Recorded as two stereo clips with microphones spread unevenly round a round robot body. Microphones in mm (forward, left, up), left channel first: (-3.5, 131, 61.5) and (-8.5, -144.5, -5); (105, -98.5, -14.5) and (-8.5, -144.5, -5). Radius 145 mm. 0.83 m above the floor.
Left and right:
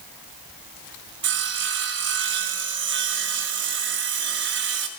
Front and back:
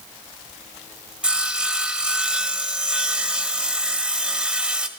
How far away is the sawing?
About 1.3 m.